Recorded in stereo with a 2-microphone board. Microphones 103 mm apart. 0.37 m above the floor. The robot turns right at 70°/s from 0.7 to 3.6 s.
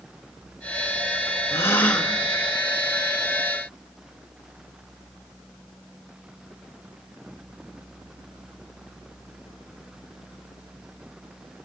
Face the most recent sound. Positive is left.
turn(degrees=-80)